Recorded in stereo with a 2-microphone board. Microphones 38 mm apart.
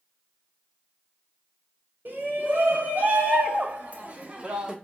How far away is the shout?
About 1.6 m.